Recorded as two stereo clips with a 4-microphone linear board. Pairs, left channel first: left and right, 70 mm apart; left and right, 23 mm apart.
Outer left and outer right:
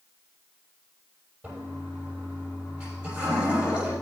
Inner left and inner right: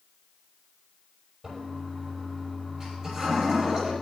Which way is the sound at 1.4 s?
15° right (ahead or behind).